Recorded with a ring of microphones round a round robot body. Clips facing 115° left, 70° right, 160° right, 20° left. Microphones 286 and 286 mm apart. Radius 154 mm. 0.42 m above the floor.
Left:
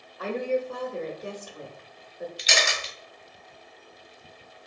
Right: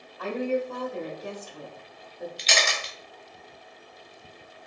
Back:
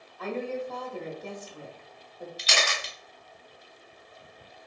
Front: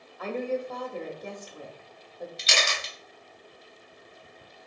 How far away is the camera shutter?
About 0.9 m.